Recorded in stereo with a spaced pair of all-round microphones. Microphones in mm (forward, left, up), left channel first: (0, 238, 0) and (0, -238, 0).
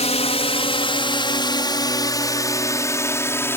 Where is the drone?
15° left (ahead or behind); by 3.6 s 5° left (ahead or behind).